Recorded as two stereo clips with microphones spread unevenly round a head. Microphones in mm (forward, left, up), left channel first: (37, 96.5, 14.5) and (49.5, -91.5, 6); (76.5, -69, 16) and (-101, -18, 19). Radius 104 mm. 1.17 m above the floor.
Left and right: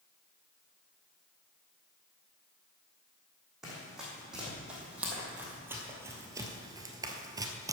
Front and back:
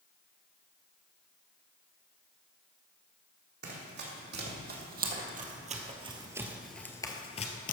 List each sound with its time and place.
3.6 s running footsteps: 175° right, 3 m; by 7.7 s 20° right, 1.5 m